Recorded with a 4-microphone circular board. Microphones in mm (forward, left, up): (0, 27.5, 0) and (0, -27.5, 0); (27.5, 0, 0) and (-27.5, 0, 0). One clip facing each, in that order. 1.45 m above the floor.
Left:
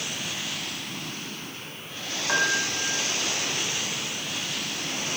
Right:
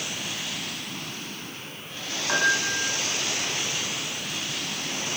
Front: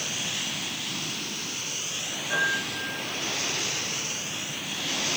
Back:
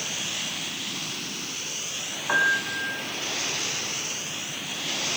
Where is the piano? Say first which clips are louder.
Right 1 dB, back 4 dB; 175° left, 6 m.